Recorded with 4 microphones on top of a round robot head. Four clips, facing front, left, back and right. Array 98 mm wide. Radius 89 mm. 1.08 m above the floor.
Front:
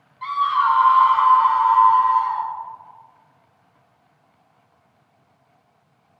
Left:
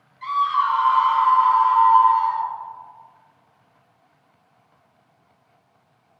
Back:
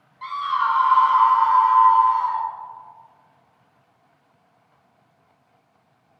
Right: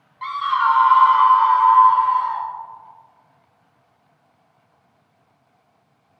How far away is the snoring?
I don't hear snoring.